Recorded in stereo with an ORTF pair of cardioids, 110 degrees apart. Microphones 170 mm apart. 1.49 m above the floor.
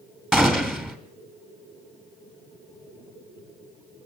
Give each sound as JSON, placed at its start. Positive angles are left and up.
{"t": 0.3, "sound": "a gunshot", "azimuth_deg": -5, "distance_m": 2.0}